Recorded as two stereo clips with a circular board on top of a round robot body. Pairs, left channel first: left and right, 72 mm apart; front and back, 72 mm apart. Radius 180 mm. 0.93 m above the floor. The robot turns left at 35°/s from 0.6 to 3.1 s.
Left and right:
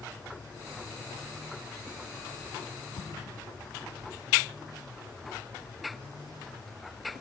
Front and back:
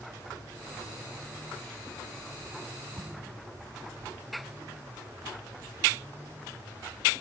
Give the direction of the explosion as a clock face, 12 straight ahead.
8 o'clock.